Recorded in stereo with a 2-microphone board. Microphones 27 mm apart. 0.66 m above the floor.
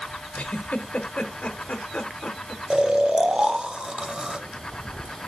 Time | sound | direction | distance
0.3 | a giggle | 75° left (ahead or behind) | 0.6 m
2.7 | snoring | 35° right (ahead or behind) | 0.5 m